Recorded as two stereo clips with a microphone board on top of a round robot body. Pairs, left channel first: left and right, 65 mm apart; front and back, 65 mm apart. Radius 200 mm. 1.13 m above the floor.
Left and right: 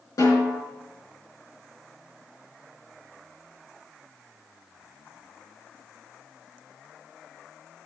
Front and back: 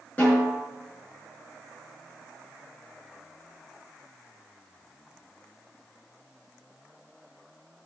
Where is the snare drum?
70° left, 4.5 m.